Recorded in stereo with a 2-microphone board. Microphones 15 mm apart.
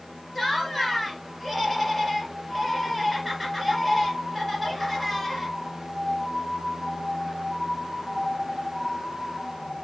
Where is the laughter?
5° right (ahead or behind), 2 m.